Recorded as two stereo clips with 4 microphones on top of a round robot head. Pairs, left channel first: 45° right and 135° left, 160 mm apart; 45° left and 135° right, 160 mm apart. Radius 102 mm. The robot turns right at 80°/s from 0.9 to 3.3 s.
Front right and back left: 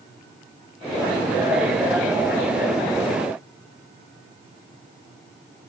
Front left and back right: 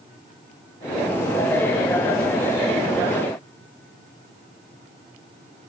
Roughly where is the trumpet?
No trumpet in this recording.